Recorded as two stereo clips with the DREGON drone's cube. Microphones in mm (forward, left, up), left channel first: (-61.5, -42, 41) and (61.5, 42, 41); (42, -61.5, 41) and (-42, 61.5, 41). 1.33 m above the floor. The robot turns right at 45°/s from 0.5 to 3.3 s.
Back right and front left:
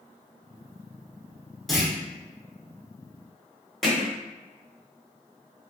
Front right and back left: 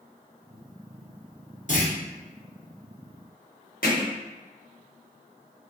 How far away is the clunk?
About 0.8 m.